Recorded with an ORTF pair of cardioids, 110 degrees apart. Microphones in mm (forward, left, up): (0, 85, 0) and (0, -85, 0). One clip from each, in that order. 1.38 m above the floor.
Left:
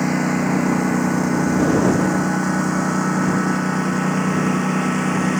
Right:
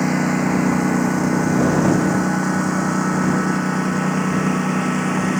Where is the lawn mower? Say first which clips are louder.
Right 1 dB; 5° right; by 5.4 s straight ahead.